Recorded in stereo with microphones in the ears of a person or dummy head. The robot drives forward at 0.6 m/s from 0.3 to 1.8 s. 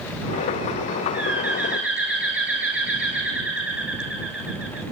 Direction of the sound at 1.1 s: 5° right (ahead or behind).